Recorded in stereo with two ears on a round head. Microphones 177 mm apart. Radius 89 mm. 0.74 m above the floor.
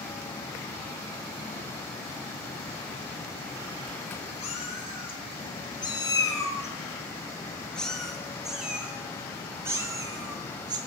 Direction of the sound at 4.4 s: 35° left (ahead or behind).